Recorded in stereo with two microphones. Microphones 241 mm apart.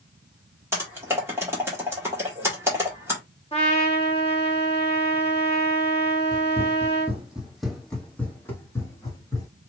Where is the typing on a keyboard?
10° right (ahead or behind), 2.5 m.